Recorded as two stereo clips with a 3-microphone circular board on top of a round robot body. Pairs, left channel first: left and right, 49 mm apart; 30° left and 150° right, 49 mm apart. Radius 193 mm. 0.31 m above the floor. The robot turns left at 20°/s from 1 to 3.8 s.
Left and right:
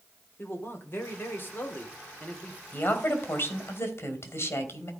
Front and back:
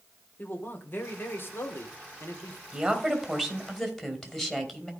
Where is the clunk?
I don't hear a clunk.